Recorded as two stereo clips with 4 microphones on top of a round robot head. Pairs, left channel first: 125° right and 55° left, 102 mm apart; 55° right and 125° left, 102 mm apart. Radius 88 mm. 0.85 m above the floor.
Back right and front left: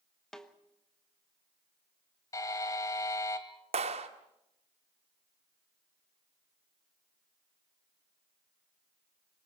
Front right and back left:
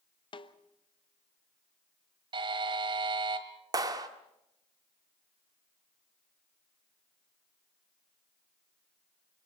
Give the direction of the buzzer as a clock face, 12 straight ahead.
6 o'clock.